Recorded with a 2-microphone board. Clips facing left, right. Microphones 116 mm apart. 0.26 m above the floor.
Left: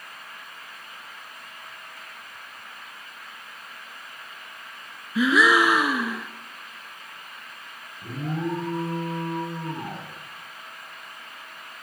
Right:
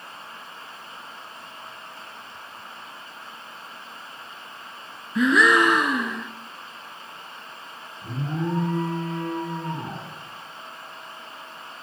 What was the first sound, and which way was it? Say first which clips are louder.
A gasp: right 1 dB; 5° left (ahead or behind).